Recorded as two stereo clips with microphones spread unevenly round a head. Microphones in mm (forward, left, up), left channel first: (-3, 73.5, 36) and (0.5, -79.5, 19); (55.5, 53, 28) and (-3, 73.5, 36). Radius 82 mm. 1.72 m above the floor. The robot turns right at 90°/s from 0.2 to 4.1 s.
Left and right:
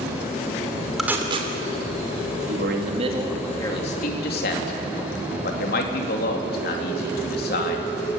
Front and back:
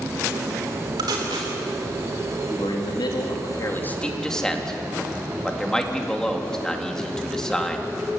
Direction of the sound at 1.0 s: Straight behind.